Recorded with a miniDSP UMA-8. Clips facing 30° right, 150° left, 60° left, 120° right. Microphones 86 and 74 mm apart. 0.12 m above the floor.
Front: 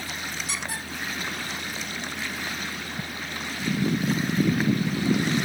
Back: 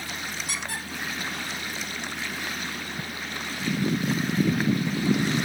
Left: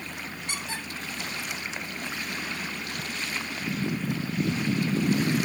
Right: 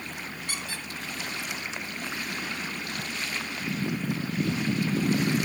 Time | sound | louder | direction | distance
0.5 | a squeak | front 1 dB, left 4 dB | 125° left | 3 m